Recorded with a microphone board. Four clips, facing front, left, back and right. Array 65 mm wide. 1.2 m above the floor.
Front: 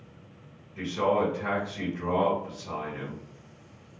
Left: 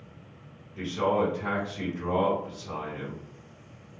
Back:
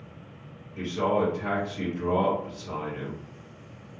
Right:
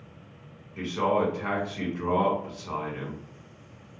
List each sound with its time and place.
0.8 s a man speaking: 75° right, 1.6 m